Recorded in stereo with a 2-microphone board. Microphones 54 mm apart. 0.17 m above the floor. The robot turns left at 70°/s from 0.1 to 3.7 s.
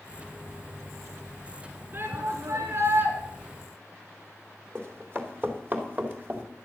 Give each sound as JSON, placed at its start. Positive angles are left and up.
{"t": 1.9, "sound": "a shout", "azimuth_deg": -50, "distance_m": 2.5}
{"t": 4.8, "sound": "running footsteps", "side_deg": -45, "distance_m": 3.5}